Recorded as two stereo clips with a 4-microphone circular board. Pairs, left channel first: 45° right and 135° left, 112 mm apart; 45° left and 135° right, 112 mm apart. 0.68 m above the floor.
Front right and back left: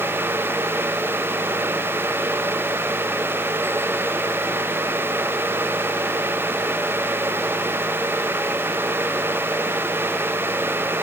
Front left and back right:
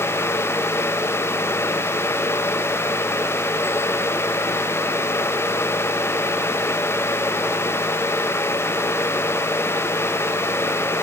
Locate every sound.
Only background noise.